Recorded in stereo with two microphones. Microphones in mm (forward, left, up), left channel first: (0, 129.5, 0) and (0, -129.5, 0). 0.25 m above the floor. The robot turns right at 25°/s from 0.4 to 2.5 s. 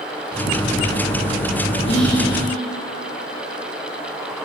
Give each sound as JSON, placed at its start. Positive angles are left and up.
{"t": 1.9, "sound": "whispering", "side_deg": 20, "distance_m": 3.5}